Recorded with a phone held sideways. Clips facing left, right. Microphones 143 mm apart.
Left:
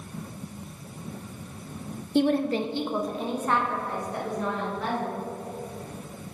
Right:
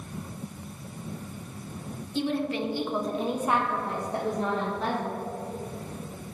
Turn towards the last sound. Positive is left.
turn(degrees=-35)  # may be behind; listen again after turning